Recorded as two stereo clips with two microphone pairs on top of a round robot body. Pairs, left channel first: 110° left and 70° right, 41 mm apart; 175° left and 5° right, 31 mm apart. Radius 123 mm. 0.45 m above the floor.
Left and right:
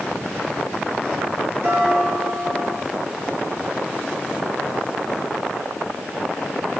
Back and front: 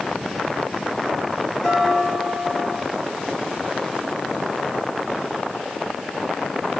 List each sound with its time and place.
1.6 s dishes clattering: 95° right, 6.5 m